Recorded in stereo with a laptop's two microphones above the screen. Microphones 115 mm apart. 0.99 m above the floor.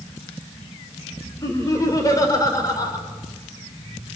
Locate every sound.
1.4 s laughter: 30° left (ahead or behind), 3.5 m